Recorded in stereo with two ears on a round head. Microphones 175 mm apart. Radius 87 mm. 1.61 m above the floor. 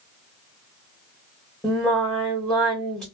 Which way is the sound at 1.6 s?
5° left (ahead or behind).